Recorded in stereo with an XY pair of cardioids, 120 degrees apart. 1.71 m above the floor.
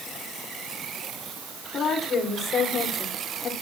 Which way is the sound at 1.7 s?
45° left.